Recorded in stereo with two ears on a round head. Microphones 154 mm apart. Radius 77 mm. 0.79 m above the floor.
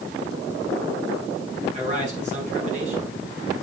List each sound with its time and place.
1.7 s a man speaking: 40° right (ahead or behind), 6 m